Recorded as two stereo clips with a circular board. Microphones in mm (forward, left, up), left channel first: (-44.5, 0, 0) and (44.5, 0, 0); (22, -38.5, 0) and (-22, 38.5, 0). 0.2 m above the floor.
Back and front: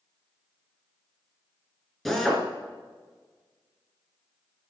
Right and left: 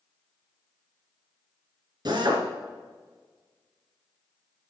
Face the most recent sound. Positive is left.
turn(degrees=90)